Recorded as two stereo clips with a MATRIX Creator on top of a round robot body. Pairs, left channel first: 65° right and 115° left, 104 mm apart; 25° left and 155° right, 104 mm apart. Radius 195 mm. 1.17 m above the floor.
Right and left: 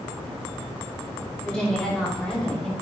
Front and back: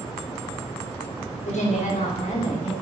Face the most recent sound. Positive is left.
turn(degrees=20)